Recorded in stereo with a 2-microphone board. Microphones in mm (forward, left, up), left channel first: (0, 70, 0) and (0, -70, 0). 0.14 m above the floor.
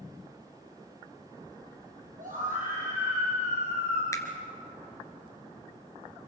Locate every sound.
2.2 s a scream: 70° right (ahead or behind), 3.5 m; by 4.0 s 60° right (ahead or behind), 3 m
4.1 s a finger snap: 25° left (ahead or behind), 1.9 m